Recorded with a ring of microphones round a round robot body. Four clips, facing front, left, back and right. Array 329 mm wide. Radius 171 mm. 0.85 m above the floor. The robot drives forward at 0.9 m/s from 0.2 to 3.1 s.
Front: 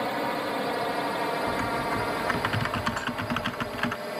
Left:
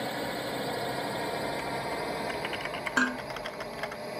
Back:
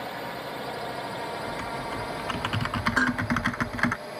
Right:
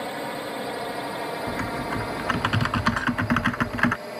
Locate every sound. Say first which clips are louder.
0.0 s a drone: right 3 dB, front 6 dB; 15° right; by 4.2 s 25° right
1.5 s typing on a keyboard: right 4 dB, front 5 dB; 60° right; by 4.0 s 105° right
3.0 s dishes clattering: right 1 dB, back 7 dB; 145° left